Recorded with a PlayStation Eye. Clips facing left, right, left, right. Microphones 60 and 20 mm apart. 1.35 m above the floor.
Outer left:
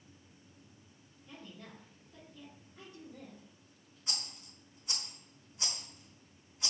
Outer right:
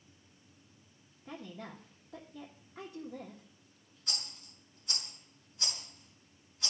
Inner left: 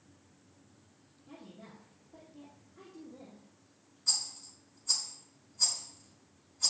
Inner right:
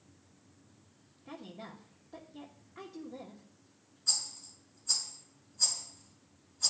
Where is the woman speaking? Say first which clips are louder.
Outer right 6 dB, inner right 5 dB; 70° right (ahead or behind), 1.3 m.